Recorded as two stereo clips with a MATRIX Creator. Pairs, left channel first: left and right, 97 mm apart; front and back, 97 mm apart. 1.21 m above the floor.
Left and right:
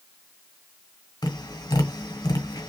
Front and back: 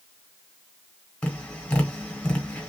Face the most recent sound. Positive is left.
turn(degrees=75)